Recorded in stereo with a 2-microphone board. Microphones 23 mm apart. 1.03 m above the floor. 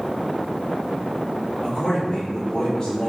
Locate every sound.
1.6 s a man speaking: 30° left (ahead or behind), 2 m; by 3.1 s 25° left (ahead or behind), 3 m